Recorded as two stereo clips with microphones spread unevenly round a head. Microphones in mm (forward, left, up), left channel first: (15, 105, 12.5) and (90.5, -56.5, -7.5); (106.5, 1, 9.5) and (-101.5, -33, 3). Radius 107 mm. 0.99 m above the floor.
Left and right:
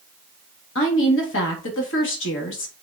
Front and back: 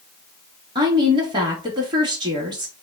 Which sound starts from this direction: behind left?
A woman speaking, at 0.8 s.